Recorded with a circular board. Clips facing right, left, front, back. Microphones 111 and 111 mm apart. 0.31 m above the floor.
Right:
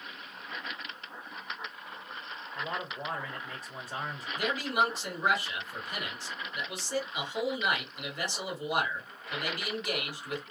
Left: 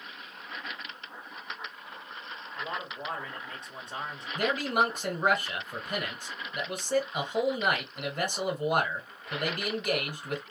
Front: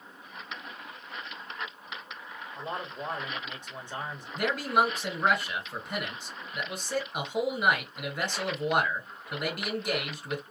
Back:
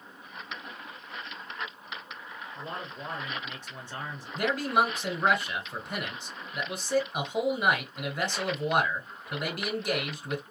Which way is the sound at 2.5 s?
10° right.